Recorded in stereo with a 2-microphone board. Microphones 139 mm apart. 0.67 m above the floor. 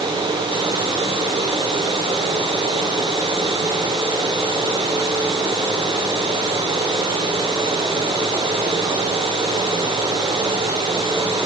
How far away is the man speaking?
I don't hear a man speaking.